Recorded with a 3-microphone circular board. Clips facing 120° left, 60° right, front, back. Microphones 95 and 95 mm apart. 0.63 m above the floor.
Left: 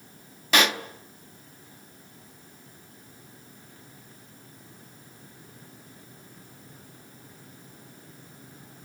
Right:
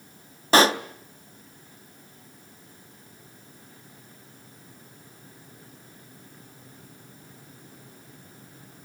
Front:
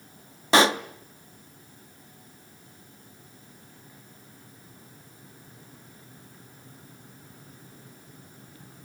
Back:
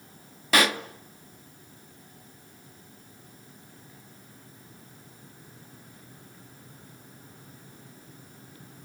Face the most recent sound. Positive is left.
turn(degrees=-40)